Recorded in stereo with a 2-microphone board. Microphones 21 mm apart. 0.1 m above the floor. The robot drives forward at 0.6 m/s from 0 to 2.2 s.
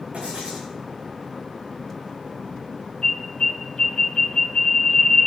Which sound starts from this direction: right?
Writing, at 0.1 s.